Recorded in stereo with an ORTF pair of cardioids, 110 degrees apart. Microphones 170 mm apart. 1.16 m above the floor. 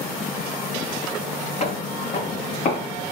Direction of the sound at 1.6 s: 40° left.